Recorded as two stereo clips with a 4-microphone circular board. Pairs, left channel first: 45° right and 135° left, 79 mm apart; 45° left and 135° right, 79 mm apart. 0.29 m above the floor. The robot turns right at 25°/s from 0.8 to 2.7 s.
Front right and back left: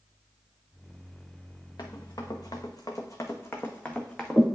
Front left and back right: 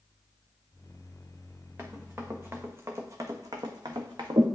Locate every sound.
1.8 s running footsteps: 80° right, 1.3 m; by 4.4 s 130° right, 1.2 m